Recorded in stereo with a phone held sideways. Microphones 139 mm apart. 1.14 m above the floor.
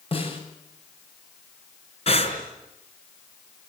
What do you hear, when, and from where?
0.1 s a snare drum: 40° left (ahead or behind), 7 m
2.1 s breathing: 45° left (ahead or behind), 4.5 m